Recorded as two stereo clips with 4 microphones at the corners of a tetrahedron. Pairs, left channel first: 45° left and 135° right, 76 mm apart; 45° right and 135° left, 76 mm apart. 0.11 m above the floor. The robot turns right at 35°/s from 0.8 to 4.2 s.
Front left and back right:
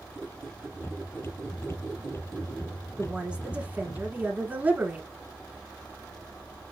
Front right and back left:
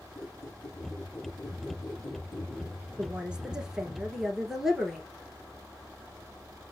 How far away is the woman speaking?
About 1.1 m.